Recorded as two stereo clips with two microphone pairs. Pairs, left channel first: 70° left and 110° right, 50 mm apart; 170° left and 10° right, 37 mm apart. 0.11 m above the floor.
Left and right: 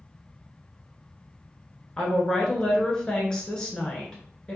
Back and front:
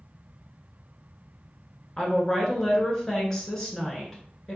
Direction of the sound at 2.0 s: 115° left.